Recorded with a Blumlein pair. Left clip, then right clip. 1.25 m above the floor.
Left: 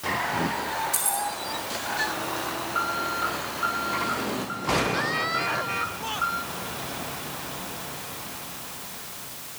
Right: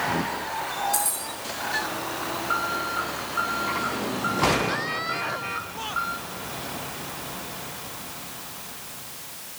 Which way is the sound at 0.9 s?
Straight ahead.